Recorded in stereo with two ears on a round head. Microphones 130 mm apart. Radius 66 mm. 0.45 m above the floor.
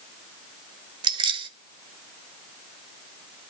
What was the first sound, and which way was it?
Keys jangling, 35° right (ahead or behind).